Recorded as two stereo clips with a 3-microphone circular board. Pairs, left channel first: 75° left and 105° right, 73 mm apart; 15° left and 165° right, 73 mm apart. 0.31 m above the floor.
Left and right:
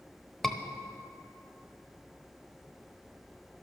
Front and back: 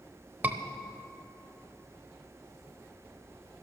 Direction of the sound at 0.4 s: 155° left.